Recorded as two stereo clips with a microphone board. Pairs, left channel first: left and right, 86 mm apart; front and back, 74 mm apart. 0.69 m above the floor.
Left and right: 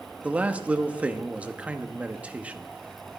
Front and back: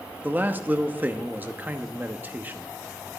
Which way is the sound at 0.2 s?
145° right.